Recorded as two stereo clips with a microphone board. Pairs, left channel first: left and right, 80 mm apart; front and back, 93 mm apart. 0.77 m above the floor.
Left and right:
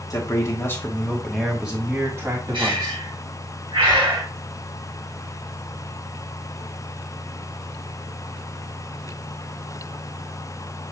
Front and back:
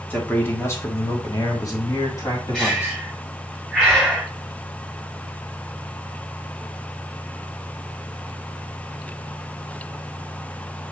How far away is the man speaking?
About 1.3 m.